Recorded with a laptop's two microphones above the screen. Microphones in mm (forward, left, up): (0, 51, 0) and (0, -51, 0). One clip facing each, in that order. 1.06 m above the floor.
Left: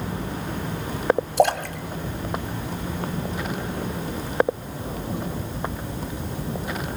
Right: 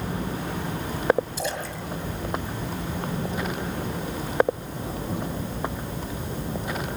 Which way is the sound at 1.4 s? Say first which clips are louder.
Left 10 dB; 65° left (ahead or behind).